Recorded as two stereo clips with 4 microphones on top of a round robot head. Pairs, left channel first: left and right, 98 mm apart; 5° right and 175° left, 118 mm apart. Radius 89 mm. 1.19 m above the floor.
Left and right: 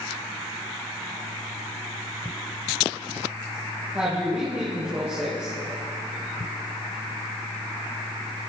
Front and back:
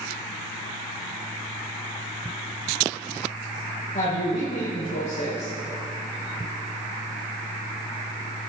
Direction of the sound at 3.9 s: 15° right.